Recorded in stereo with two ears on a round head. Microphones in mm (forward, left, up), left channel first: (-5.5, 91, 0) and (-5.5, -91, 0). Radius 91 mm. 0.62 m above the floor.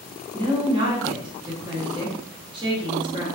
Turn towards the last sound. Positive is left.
turn(degrees=-25)  # may be behind; listen again after turning